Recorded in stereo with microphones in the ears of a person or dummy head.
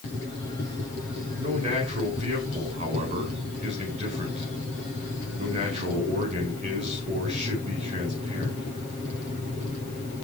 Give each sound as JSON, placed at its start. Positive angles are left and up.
{"t": 1.4, "sound": "a man speaking", "side_deg": -35, "distance_m": 5.0}